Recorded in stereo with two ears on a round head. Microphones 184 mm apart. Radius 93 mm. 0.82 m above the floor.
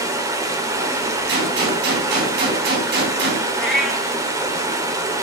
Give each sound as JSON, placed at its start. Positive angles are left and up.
{"t": 0.0, "sound": "running water", "side_deg": -15, "distance_m": 1.8}
{"t": 1.3, "sound": "a gunshot", "side_deg": -55, "distance_m": 4.0}
{"t": 3.6, "sound": "a cat meowing", "side_deg": 0, "distance_m": 2.5}